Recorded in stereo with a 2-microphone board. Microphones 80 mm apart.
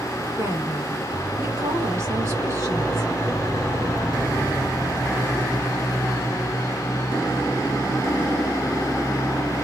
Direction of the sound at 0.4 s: 40° right (ahead or behind).